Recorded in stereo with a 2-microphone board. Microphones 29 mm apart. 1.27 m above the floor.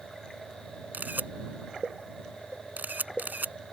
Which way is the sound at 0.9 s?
80° right.